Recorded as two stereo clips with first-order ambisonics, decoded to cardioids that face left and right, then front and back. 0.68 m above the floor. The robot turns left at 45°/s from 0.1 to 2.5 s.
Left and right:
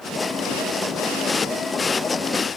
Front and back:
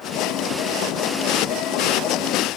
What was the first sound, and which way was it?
Only background noise.